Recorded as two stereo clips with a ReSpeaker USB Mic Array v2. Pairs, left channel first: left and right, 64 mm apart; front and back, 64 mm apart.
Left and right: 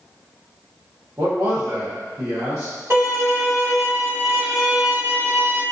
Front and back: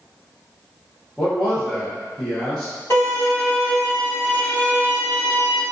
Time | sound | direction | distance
1.2 | a man speaking | 75° right | 0.7 m
2.9 | a violin | 45° right | 1.6 m